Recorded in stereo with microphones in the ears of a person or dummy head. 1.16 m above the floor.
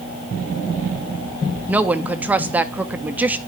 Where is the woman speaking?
10° right (ahead or behind), 0.8 m.